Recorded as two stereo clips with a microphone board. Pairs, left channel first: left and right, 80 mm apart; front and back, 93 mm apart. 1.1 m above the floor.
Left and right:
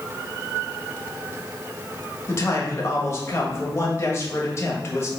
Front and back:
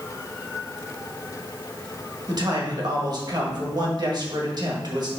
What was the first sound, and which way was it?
A man speaking, 140° left.